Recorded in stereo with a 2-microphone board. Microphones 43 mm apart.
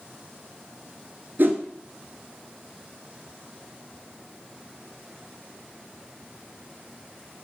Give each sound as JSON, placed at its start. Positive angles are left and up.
{"t": 1.4, "sound": "a whoosh", "side_deg": -60, "distance_m": 0.5}